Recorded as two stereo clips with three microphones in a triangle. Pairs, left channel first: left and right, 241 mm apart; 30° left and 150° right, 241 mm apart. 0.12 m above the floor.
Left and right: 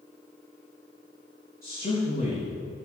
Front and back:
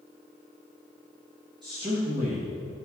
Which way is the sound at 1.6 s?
140° left.